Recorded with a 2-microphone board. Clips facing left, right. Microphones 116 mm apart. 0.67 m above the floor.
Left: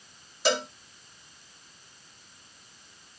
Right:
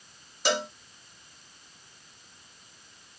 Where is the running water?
No running water in this recording.